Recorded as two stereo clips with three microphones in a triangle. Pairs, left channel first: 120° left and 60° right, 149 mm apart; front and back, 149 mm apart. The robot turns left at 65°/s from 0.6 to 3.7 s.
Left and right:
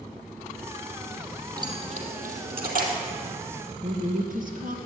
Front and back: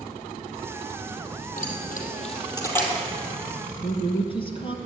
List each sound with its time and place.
1.6 s keys jangling: 5° left, 2.5 m; by 2.9 s 85° right, 2.5 m
3.8 s a woman speaking: 50° right, 2.5 m